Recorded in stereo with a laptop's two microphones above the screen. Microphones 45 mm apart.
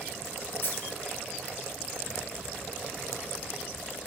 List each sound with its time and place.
0.6 s a dropped coin: 50° left (ahead or behind), 5 m